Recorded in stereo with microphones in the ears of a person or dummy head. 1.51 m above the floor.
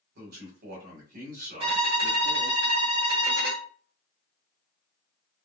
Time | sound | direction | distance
0.1 | a man speaking | 60° right (ahead or behind) | 1.7 m
1.6 | a violin | 35° right (ahead or behind) | 1.0 m